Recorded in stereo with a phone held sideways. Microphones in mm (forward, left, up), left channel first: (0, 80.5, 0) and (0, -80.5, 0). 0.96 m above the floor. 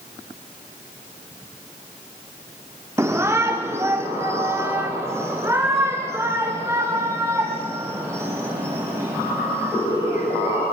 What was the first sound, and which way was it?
A shout, 15° right (ahead or behind).